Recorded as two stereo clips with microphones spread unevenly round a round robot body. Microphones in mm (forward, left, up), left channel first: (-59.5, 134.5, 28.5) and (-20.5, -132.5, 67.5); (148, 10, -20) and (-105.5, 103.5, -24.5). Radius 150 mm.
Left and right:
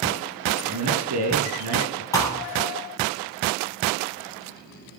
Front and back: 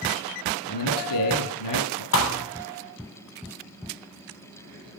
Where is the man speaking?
45° right, 8.5 m.